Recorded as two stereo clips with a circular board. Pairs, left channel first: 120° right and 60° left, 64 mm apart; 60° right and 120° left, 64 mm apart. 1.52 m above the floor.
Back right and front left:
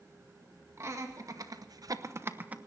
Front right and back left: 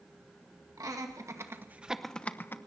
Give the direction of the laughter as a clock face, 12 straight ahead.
9 o'clock.